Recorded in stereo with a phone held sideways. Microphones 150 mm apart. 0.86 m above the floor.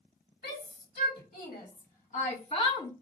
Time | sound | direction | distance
0.4 | a shout | 75° left (ahead or behind) | 2.5 m